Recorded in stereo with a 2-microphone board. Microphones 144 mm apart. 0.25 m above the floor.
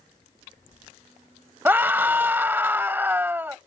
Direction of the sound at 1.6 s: 15° right (ahead or behind).